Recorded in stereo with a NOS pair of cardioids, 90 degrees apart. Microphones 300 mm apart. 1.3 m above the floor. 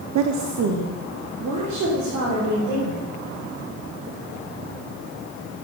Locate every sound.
0.1 s a woman speaking: 60° right, 0.6 m; by 3.0 s 70° right, 4.5 m